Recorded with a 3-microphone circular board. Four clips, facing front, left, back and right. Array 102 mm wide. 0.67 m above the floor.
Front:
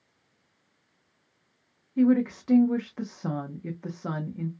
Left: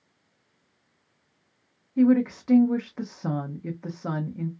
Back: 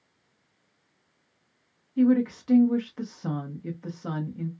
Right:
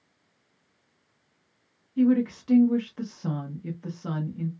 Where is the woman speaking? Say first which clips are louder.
Left 2 dB, even; 55° left, 0.7 m.